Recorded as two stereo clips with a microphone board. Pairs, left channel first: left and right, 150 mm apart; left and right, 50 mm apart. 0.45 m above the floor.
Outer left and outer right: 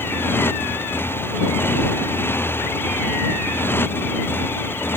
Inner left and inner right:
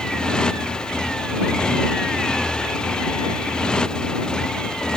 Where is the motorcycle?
15° left (ahead or behind).